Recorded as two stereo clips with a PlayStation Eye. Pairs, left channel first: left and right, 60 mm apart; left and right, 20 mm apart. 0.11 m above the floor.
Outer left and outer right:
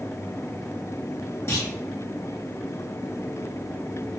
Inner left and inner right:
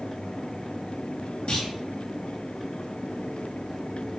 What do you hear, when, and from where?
1.5 s a clunk: 45° left (ahead or behind), 5.5 m